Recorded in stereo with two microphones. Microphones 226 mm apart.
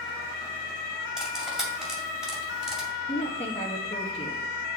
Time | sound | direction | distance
1.2 | cutlery clinking | 5° right (ahead or behind) | 2.5 m
3.1 | a woman speaking | 25° left (ahead or behind) | 0.9 m